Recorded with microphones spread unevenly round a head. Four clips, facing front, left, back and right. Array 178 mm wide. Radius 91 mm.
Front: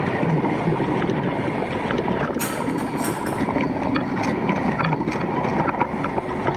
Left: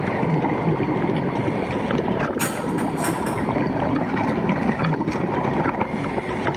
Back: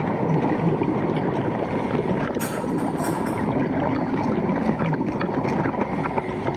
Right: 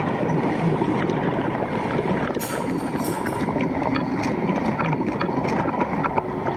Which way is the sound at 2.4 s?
60° left.